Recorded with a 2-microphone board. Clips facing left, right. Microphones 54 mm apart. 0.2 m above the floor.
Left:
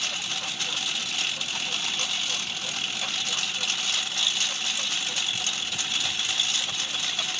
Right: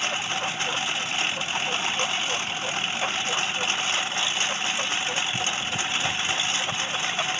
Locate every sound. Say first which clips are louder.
0.0 s a lawn mower: right 5 dB; 30° right (ahead or behind)